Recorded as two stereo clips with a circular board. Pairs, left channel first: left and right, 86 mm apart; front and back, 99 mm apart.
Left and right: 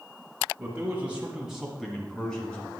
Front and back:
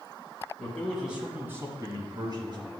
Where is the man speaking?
60° right, 1.6 m; by 2.7 s 165° left, 2.5 m.